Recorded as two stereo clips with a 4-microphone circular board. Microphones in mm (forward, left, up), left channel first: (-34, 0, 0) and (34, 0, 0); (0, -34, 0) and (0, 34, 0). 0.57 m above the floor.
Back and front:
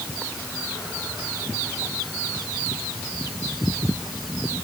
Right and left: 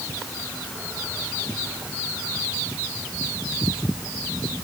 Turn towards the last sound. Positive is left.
No sound to turn to.